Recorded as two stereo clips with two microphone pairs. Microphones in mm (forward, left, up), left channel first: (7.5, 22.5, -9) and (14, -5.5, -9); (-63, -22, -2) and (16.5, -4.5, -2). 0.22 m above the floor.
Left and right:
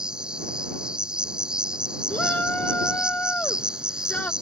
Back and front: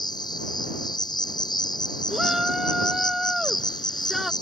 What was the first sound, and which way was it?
An insect, 135° right.